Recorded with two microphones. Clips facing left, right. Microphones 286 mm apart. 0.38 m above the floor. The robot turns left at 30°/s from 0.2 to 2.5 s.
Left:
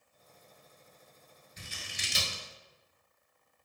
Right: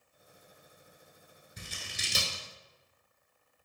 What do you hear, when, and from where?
1.6 s scissors: 60° right (ahead or behind), 0.9 m; by 2.4 s 35° right (ahead or behind), 0.9 m